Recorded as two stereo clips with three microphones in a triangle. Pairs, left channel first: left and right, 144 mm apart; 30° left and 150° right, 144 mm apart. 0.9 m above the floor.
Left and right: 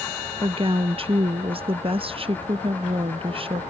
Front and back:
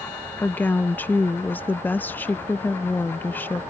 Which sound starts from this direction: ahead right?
A woman speaking, at 0.4 s.